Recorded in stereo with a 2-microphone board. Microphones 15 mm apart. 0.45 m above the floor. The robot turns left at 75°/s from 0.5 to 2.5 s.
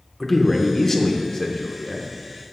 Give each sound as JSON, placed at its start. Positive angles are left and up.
{"t": 0.2, "sound": "a man speaking", "side_deg": 10, "distance_m": 0.8}